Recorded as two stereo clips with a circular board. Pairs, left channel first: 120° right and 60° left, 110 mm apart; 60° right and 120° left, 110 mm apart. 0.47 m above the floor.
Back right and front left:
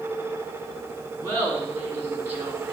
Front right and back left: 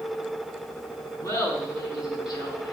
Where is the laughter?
Straight ahead, 4.5 m; by 2.7 s 15° right, 3.5 m.